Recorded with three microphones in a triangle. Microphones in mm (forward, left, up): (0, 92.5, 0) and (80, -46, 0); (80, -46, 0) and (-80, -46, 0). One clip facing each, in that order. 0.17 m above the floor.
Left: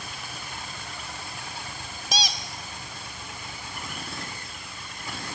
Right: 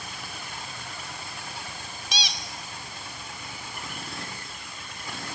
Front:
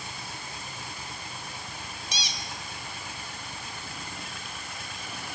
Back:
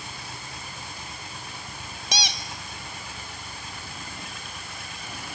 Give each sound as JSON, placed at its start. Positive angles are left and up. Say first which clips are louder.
{"t": 2.1, "sound": "a squeak", "louder": "left 6 dB, back 10 dB", "azimuth_deg": 165, "distance_m": 0.8}